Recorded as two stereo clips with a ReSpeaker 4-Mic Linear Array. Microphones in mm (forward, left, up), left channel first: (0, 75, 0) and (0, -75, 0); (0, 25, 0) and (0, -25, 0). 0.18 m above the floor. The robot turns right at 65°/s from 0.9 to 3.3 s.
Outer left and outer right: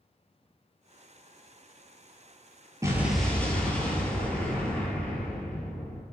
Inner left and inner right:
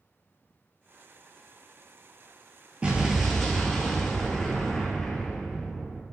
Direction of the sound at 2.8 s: 25° right.